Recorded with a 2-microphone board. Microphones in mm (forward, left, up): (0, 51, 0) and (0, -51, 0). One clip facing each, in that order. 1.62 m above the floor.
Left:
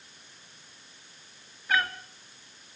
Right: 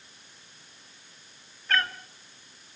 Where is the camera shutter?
No camera shutter in this recording.